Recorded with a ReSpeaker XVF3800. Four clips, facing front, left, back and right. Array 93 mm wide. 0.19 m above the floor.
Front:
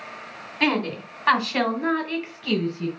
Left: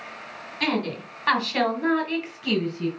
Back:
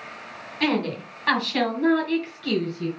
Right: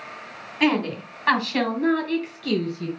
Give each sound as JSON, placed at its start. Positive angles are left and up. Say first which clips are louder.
{"t": 0.6, "sound": "a woman speaking", "louder": "right 4 dB, front 1 dB", "azimuth_deg": -60, "distance_m": 1.7}